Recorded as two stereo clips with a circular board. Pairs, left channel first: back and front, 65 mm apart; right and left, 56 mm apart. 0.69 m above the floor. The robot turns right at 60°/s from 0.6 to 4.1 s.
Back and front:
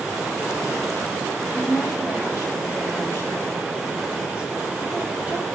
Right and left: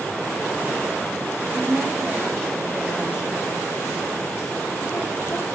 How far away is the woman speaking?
About 4 m.